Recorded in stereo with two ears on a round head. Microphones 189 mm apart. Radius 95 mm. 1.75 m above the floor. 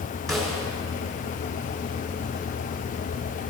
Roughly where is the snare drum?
Centre.